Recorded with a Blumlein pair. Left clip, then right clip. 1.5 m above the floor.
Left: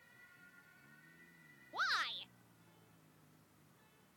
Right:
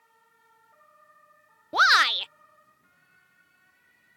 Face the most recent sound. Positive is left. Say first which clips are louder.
# right 19 dB
turn(degrees=-40)